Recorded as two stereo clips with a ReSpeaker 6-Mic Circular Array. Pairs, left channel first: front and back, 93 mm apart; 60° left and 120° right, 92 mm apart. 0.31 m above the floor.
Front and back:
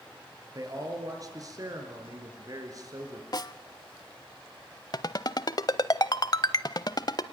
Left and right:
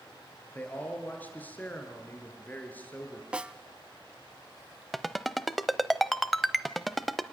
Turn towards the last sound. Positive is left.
turn(degrees=-30)